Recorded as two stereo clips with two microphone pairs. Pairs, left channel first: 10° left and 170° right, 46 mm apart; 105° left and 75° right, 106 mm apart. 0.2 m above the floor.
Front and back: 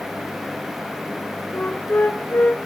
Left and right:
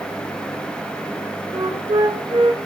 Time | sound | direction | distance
1.5 | a flute | 35° right | 2.5 m